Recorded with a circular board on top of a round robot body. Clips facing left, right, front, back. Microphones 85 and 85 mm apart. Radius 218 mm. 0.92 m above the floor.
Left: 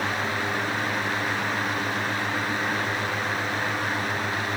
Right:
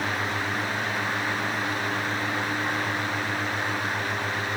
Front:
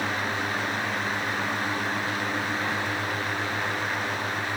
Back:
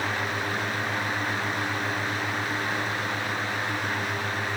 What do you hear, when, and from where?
Only background noise.